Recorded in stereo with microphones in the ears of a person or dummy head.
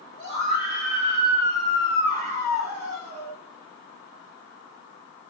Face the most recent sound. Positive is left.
turn(degrees=15)  # may be behind; listen again after turning